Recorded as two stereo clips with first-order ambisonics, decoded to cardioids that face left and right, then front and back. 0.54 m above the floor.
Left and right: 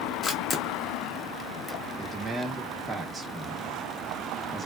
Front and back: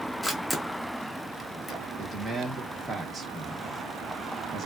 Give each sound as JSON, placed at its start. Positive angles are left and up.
{"t": 0.2, "sound": "a camera shutter", "azimuth_deg": 90, "distance_m": 0.7}
{"t": 2.0, "sound": "a man speaking", "azimuth_deg": -155, "distance_m": 0.9}